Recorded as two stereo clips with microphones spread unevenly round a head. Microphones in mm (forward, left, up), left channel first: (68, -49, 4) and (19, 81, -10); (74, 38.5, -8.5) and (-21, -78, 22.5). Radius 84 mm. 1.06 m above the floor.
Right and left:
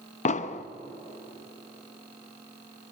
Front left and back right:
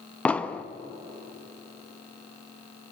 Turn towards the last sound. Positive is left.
turn(degrees=-35)